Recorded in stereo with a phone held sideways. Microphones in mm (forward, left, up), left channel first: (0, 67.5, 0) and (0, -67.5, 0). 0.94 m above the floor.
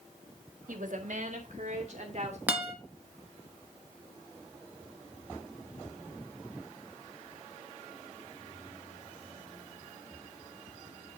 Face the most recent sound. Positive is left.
turn(degrees=-10)  # may be behind; listen again after turning